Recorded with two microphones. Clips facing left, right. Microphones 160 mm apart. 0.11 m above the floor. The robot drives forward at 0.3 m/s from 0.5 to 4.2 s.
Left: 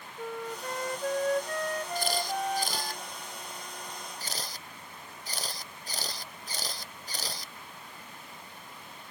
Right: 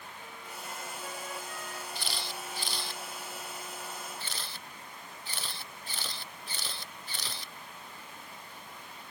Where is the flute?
60° left (ahead or behind); by 3.0 s 65° left (ahead or behind).